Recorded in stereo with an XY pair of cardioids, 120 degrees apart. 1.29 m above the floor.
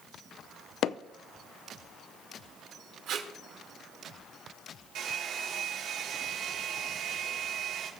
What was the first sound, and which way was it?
Hammering, 65° left.